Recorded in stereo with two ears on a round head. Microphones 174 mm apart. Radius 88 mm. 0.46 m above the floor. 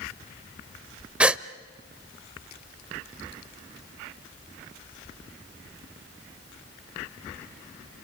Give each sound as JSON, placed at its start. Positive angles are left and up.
{"t": 1.2, "sound": "a gasp", "side_deg": -5, "distance_m": 0.6}